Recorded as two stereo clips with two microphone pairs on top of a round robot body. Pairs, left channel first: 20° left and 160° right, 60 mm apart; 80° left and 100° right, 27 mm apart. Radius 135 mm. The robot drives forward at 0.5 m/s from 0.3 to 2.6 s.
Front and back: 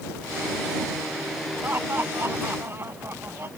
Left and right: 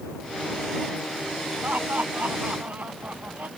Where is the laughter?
100° right; by 3.5 s 105° right.